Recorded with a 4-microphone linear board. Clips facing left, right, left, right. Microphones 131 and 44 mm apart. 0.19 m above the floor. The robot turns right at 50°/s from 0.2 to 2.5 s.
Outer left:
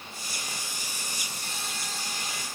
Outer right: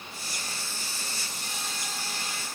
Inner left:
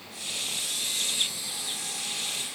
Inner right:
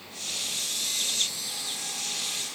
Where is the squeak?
I don't hear a squeak.